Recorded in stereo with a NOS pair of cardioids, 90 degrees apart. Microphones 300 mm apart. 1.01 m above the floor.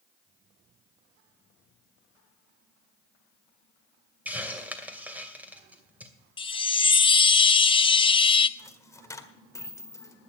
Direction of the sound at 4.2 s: 5° right.